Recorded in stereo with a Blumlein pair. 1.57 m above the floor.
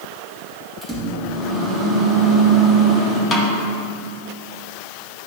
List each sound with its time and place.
0.8 s a microwave: 5° right, 1.9 m
3.3 s a snare drum: 20° left, 1.2 m